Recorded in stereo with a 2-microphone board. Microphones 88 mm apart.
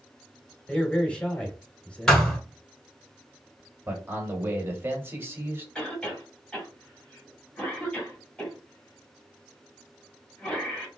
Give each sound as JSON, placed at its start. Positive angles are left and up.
{"t": 0.7, "sound": "a man speaking", "side_deg": 15, "distance_m": 1.2}
{"t": 2.1, "sound": "a thud", "side_deg": 5, "distance_m": 1.6}
{"t": 3.9, "sound": "a man speaking", "side_deg": -25, "distance_m": 1.1}
{"t": 5.8, "sound": "a cough", "side_deg": 10, "distance_m": 2.0}